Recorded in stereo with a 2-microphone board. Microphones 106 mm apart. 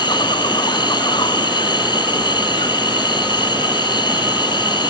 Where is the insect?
45° left (ahead or behind).